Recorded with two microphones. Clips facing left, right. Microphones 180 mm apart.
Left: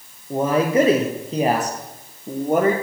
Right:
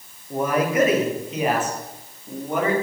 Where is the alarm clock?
I don't hear an alarm clock.